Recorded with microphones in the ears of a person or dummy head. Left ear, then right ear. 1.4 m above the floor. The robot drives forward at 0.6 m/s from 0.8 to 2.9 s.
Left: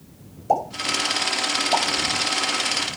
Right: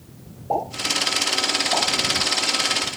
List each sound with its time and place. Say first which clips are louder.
0.5 s a pop: left 1 dB; 70° left (ahead or behind), 6.5 m; by 3.0 s 60° left (ahead or behind), 7 m